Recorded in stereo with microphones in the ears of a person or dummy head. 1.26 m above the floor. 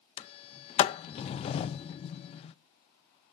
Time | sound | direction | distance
0.2 | a sliding door | 20° left (ahead or behind) | 0.5 m